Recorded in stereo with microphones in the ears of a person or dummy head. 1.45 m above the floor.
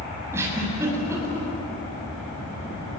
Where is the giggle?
10° right (ahead or behind), 7.5 m.